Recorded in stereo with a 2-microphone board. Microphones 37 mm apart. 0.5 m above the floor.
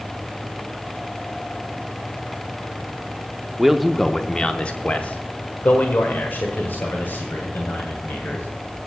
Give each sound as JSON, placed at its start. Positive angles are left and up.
{"t": 3.6, "sound": "a man speaking", "side_deg": -10, "distance_m": 0.7}